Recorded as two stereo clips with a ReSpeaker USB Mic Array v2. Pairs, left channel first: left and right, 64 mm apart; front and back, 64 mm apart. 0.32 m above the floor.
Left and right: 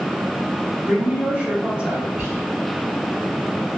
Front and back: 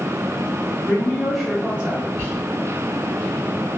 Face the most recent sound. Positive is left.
turn(degrees=-65)